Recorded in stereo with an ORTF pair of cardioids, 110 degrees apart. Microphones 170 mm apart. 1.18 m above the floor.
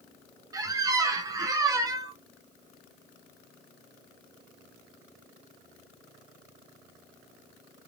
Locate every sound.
0.5 s a squeak: 20° right, 0.7 m